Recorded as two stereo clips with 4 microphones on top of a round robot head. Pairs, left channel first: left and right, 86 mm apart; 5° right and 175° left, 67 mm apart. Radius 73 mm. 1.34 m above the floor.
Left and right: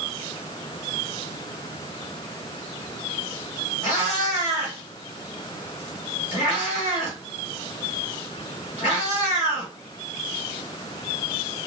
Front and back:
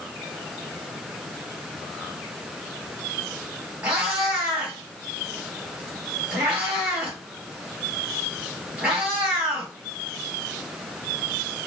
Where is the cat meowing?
110° left, 1.8 m.